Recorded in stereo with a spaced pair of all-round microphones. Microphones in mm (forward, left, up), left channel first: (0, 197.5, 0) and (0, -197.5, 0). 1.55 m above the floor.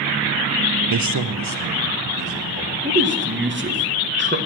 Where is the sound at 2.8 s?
30° right (ahead or behind), 1.5 m.